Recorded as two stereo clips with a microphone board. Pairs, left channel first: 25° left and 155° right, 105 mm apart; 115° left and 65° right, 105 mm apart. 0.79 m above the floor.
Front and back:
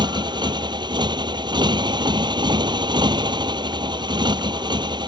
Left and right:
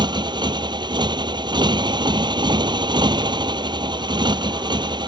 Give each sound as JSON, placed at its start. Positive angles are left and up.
{"t": 0.0, "sound": "a motorcycle", "azimuth_deg": -110}